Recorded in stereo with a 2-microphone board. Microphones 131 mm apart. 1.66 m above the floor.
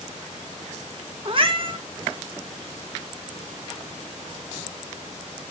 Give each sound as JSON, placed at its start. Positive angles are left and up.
{"t": 1.2, "sound": "a cat meowing", "side_deg": -40, "distance_m": 1.2}